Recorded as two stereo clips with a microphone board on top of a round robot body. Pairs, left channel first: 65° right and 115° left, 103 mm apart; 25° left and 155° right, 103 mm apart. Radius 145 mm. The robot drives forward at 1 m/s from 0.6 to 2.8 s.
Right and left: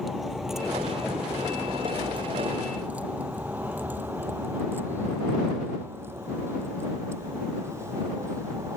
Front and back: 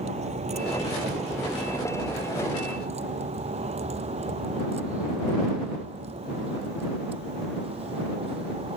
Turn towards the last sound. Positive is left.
turn(degrees=175)